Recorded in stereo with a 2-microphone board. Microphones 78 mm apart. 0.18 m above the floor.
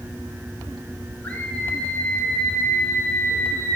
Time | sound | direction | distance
1.2 | a scream | 20° left (ahead or behind) | 8 m